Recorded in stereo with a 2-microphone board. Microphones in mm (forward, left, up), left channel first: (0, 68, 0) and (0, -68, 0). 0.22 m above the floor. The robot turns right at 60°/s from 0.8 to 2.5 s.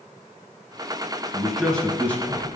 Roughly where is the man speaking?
Centre.